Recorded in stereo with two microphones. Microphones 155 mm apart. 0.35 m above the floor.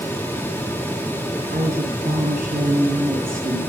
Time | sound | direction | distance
1.5 | a woman speaking | 75° right (ahead or behind) | 4 m